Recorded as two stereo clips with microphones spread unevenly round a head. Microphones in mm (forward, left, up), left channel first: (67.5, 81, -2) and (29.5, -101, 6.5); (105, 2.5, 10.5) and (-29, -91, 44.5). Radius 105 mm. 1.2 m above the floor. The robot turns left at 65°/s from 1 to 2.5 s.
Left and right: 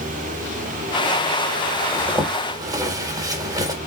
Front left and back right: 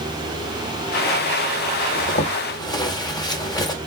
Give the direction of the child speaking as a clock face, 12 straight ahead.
No child speaking in this recording.